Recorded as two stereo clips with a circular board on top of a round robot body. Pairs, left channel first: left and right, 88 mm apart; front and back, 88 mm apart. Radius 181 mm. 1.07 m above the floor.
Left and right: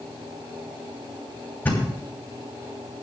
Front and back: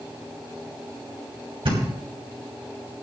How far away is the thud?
About 3 m.